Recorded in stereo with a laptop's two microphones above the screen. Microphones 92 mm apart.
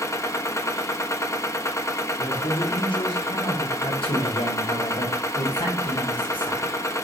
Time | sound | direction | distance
0.0 | a machine running | 30° left (ahead or behind) | 1.0 m
2.2 | a man speaking | 65° left (ahead or behind) | 2.5 m
3.8 | a man speaking | 70° left (ahead or behind) | 2.5 m